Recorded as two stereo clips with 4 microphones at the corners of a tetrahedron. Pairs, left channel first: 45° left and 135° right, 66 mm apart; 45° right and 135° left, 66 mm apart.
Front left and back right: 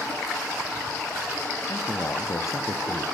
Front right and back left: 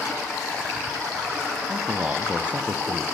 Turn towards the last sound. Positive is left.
turn(degrees=65)